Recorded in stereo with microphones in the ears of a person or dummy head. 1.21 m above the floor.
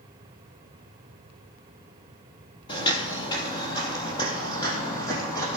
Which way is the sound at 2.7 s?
25° left (ahead or behind).